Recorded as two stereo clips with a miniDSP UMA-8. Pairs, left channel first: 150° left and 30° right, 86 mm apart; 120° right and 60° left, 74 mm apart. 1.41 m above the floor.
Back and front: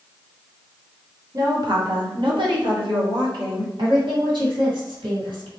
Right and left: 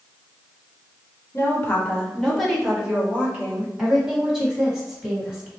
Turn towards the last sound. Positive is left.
turn(degrees=-25)